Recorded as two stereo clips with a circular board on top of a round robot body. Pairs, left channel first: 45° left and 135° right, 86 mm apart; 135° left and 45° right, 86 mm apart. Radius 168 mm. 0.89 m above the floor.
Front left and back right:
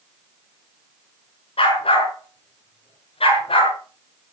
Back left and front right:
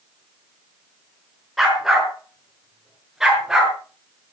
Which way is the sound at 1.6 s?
45° left.